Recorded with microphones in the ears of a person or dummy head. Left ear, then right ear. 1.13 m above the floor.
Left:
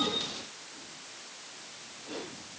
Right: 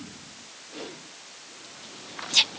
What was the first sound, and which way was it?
Only background noise.